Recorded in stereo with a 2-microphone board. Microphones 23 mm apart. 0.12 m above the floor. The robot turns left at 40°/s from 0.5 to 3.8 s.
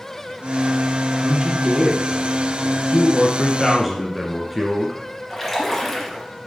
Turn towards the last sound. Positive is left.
turn(degrees=5)  # may be behind; listen again after turning